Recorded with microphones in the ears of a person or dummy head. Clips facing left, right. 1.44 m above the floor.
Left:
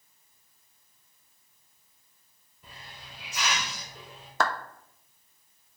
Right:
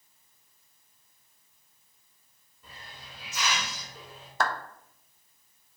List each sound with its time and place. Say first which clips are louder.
2.6 s a hiss: even; 15° left (ahead or behind), 3.5 m
4.4 s a clap: left 1 dB; 80° left, 0.7 m